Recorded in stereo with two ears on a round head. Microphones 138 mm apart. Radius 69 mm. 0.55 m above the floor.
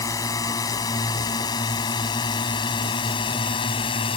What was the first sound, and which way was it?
A drone, 20° left (ahead or behind).